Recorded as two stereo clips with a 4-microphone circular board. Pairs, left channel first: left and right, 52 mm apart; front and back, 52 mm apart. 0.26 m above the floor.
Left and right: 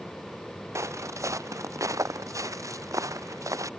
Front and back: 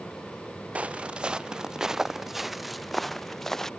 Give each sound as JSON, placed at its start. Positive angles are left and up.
{"t": 0.8, "sound": "footsteps", "azimuth_deg": -115}